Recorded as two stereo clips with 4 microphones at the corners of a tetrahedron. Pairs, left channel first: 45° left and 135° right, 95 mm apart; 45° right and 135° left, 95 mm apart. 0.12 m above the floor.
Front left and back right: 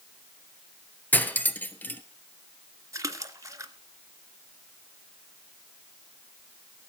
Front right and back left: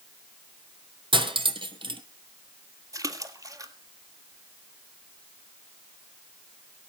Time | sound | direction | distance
1.1 | cutlery clinking | 115° left | 1.5 m
2.9 | a splash | 175° left | 1.5 m